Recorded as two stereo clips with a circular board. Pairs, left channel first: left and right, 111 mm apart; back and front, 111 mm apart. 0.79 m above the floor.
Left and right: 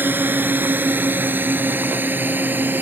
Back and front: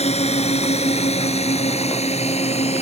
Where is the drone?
165° right.